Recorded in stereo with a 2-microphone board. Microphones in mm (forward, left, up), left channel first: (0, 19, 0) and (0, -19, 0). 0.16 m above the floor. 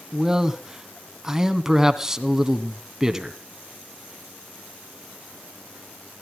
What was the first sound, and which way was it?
A man speaking, 10° right (ahead or behind).